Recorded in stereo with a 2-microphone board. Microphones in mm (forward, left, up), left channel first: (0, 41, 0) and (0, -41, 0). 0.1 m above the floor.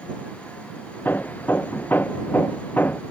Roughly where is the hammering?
Left.